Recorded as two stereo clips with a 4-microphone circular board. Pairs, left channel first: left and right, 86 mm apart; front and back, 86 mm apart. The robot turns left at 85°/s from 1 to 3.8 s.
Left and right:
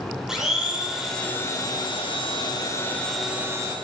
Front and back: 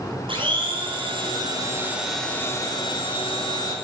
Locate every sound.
0.3 s a blender: 175° right, 6.5 m; by 3.8 s 50° right, 6.5 m